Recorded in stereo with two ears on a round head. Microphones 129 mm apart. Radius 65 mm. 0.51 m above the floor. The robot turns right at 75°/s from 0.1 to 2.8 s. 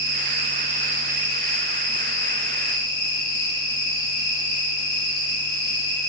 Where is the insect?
100° right, 1.5 m; by 6.1 s 105° left, 1.5 m.